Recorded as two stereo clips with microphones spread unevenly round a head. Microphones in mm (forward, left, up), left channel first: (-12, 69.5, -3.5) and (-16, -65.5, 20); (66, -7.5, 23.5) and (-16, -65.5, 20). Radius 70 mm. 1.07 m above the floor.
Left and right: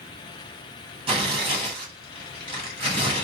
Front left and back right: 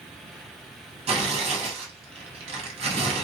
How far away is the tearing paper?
About 1.1 m.